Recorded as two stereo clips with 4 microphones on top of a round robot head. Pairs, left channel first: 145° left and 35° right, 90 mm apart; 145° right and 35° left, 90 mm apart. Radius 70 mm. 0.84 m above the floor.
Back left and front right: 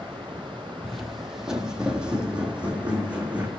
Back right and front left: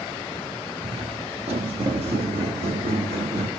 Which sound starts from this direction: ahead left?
Footsteps, at 0.8 s.